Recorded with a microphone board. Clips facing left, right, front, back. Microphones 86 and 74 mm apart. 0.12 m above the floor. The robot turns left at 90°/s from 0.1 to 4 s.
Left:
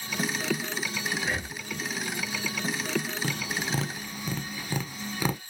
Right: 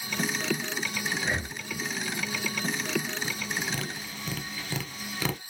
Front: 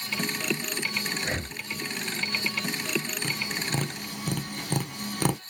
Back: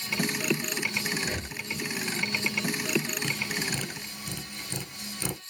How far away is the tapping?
About 0.8 m.